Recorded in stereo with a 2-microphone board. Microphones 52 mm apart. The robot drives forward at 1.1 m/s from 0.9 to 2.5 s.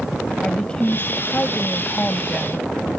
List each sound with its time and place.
0.4 s a woman speaking: 20° left (ahead or behind); by 2.7 s 15° left (ahead or behind)